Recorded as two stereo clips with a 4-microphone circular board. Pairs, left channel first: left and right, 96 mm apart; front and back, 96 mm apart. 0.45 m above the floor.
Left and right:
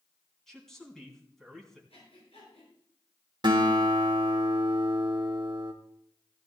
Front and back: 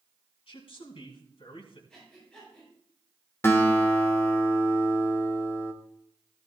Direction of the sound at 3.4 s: 60° right.